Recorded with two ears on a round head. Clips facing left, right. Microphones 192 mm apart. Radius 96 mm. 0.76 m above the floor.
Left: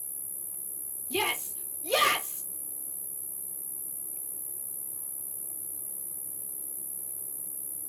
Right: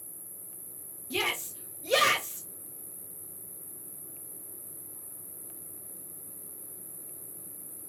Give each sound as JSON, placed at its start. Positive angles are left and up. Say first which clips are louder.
{"t": 0.0, "sound": "an insect", "louder": "right 1 dB", "side_deg": 55, "distance_m": 1.3}
{"t": 1.1, "sound": "a shout", "louder": "left 2 dB", "side_deg": -20, "distance_m": 1.0}